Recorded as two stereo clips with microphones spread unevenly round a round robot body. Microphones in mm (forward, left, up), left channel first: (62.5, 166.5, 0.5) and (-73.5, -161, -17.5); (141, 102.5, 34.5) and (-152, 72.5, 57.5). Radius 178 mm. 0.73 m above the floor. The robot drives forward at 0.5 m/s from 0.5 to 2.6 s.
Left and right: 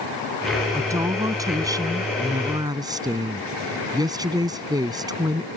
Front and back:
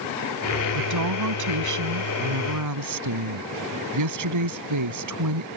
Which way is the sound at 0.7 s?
165° left.